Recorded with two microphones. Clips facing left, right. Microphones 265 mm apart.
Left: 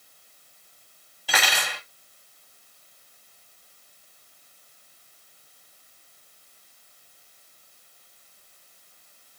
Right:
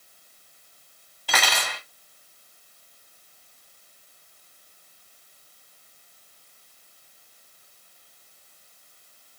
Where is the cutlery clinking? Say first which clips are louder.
Right 1 dB; 5° left (ahead or behind), 1.5 m.